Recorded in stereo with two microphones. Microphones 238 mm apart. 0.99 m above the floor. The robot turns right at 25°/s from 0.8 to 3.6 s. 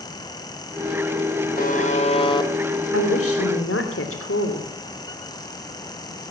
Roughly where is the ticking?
I don't hear ticking.